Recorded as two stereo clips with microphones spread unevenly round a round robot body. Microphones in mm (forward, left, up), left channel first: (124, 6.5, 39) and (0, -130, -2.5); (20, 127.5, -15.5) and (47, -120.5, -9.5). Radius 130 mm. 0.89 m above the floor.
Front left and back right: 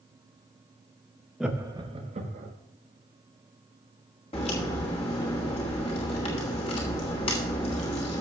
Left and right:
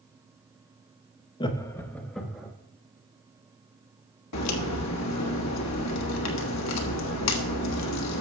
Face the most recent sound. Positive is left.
turn(degrees=120)